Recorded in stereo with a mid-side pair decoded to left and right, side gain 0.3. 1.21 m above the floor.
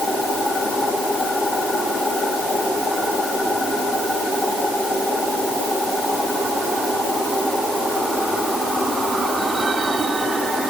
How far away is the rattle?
I don't hear a rattle.